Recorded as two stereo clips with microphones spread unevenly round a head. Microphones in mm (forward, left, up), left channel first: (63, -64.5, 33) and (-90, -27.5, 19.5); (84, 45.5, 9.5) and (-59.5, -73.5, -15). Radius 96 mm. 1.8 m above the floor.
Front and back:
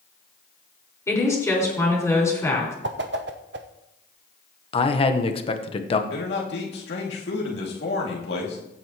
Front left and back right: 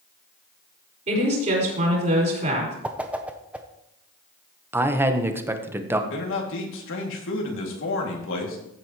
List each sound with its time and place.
1.1 s a woman speaking: 90° right, 5.5 m
2.8 s a whoosh: 130° left, 0.7 m
4.7 s a man speaking: 60° right, 1.1 m
6.1 s a man speaking: 25° left, 2.5 m